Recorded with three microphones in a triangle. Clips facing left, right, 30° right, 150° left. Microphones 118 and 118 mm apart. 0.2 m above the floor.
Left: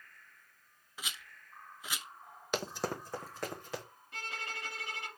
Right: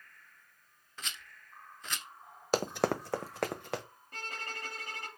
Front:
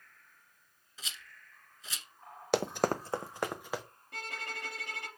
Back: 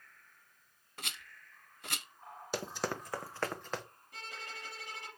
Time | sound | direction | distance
1.0 | a rattle | 170° left | 0.6 m
2.5 | running footsteps | 35° right | 0.6 m
4.1 | a violin | 45° right | 2 m